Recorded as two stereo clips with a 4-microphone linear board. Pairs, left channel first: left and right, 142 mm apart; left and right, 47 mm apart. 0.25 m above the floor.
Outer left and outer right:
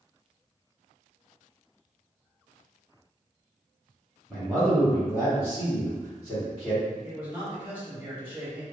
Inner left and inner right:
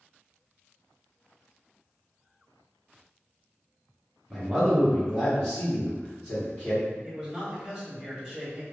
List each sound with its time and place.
4.3 s a man speaking: 5° left (ahead or behind), 1.1 m; by 6.9 s 35° left (ahead or behind), 2 m
7.0 s a man speaking: 15° right (ahead or behind), 1.3 m